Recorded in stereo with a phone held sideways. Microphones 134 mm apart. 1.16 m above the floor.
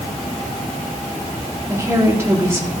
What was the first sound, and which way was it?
A woman speaking, 20° right (ahead or behind).